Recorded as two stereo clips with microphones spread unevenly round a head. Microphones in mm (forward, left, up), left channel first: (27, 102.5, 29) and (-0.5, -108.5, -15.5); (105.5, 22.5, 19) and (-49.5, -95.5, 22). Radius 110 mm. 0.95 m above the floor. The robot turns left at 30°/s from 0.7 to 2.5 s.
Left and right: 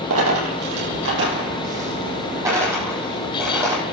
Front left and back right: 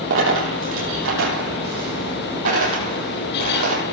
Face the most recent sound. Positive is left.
turn(degrees=180)